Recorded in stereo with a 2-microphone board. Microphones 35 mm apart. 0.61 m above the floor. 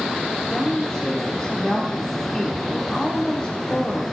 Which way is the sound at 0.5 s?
20° left (ahead or behind).